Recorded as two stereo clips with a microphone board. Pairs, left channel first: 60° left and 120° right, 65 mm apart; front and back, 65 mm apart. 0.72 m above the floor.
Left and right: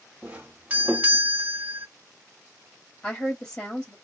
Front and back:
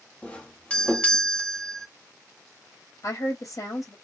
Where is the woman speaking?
15° right, 2.0 m.